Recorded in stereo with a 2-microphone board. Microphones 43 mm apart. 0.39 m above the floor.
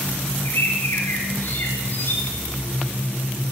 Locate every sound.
0.5 s a bird: 55° left (ahead or behind), 8 m